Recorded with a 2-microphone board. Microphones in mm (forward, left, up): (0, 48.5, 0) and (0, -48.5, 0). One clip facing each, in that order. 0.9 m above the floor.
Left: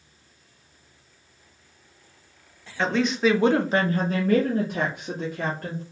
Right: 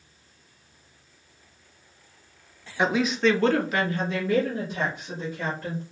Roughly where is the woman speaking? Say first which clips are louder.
Even; centre.